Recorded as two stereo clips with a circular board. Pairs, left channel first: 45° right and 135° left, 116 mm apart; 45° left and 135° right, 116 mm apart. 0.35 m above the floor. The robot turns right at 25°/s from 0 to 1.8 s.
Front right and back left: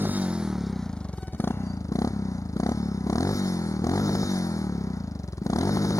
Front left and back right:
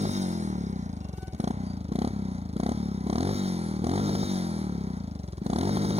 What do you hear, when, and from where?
0.0 s a motorcycle: 150° right; by 6.0 s 105° right